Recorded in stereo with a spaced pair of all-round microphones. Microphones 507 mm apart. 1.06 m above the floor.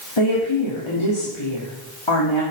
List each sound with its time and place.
0.2 s a woman speaking: 60° left (ahead or behind), 3 m